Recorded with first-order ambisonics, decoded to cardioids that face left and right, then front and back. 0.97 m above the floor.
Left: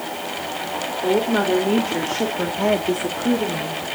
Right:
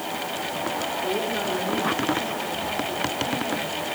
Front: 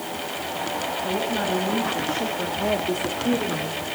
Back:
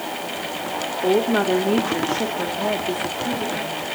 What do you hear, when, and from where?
1.0 s a woman speaking: 150° left, 3 m; by 3.8 s 70° left, 3 m